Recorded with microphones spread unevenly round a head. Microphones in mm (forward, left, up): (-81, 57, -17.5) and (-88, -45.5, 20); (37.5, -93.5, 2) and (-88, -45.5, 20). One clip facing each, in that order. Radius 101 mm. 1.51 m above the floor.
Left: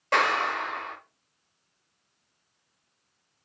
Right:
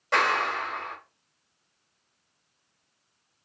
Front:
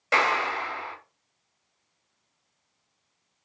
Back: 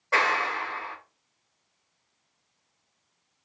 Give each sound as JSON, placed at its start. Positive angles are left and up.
{"t": 0.1, "sound": "a clap", "azimuth_deg": 20, "distance_m": 1.5}